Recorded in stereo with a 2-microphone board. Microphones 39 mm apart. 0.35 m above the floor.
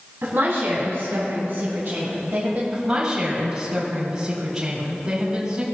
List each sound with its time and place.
0.2 s a woman speaking: 65° right (ahead or behind), 3 m; by 2.6 s 40° right (ahead or behind), 1.7 m
2.7 s a woman speaking: 30° right (ahead or behind), 3 m